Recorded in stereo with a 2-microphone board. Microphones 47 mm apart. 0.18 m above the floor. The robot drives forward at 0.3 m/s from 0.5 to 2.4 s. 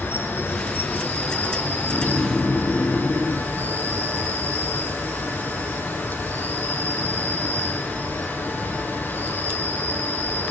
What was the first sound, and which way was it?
An insect, 55° left (ahead or behind).